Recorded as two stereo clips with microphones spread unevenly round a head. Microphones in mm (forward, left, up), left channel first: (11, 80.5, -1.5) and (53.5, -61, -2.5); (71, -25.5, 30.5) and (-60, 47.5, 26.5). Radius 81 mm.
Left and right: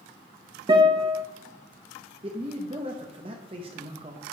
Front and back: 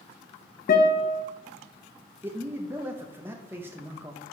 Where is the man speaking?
135° right, 0.7 m.